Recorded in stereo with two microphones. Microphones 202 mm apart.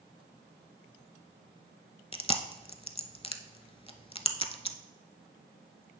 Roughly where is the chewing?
Left.